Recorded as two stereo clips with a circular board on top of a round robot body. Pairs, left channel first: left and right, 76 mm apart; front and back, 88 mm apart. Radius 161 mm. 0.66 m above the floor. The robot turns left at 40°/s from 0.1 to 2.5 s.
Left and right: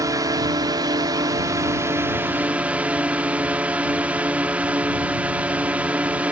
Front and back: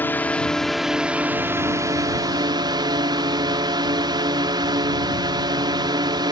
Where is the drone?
65° right; by 6.3 s 160° right.